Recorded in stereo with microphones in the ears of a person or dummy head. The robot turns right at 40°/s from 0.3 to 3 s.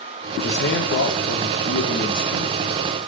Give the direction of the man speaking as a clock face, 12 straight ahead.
10 o'clock.